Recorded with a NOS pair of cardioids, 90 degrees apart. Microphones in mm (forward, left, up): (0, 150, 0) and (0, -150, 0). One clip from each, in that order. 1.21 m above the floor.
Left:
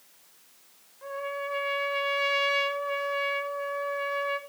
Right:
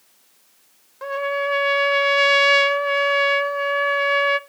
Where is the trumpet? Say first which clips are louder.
Right 10 dB; 65° right, 0.5 m.